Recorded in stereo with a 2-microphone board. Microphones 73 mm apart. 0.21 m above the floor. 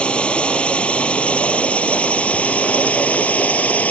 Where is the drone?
15° left (ahead or behind); by 3.9 s 20° left (ahead or behind).